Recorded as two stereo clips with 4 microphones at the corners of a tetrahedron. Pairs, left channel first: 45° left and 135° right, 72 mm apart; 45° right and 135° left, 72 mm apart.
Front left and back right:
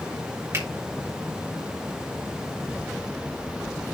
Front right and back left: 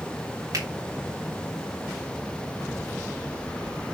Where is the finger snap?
175° left, 3.5 m.